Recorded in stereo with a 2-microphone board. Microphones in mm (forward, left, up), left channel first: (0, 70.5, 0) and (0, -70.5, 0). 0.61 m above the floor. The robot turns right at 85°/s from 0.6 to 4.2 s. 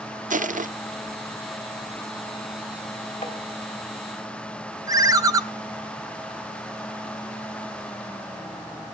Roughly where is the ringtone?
Right.